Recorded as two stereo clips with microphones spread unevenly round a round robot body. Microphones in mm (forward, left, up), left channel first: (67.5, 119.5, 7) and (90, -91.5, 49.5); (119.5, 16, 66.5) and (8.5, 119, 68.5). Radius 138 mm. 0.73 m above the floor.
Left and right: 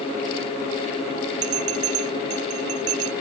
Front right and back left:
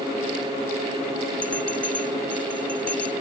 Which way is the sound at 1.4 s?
125° right.